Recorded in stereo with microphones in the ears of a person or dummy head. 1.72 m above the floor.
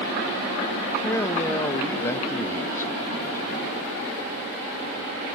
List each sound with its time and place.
1.0 s a man speaking: 15° left (ahead or behind), 0.5 m